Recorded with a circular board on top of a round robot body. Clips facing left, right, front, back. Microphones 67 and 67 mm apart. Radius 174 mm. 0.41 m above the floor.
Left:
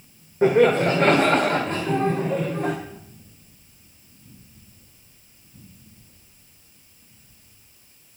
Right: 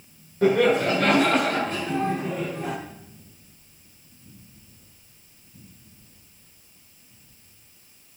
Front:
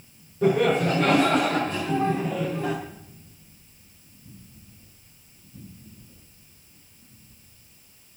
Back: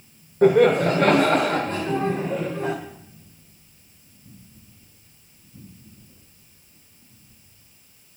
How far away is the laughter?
About 2.0 m.